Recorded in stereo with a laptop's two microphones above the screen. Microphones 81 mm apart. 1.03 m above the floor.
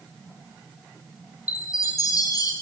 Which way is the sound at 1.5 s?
45° left (ahead or behind).